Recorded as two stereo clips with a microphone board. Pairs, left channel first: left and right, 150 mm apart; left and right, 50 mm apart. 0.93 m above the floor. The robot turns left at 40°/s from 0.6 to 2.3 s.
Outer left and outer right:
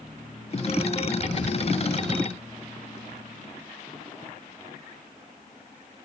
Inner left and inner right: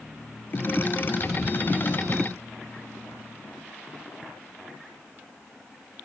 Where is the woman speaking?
I don't hear a woman speaking.